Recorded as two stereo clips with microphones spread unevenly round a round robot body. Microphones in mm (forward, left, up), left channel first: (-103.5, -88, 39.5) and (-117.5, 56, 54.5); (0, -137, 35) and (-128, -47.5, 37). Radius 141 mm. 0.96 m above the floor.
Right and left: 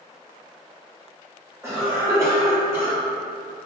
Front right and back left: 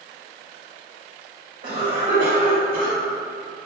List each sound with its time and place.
1.6 s a cough: 170° left, 1.8 m